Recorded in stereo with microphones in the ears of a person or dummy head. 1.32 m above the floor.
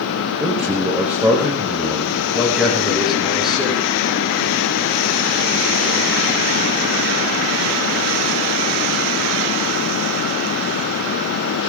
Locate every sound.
0.4 s a man speaking: 5° right (ahead or behind), 5 m
2.3 s a man speaking: centre (ahead or behind), 9 m